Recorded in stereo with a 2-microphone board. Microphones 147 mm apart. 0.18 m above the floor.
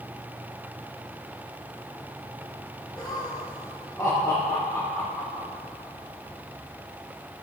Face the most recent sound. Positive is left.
turn(degrees=10)  # may be behind; listen again after turning